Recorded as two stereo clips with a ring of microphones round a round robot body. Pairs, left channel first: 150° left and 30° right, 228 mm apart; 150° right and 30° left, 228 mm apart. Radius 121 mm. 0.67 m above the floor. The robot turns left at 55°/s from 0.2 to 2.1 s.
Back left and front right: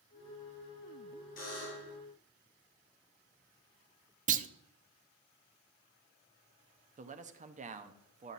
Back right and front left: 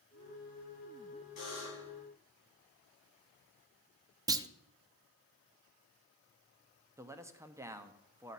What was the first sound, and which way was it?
A buzzer, 170° right.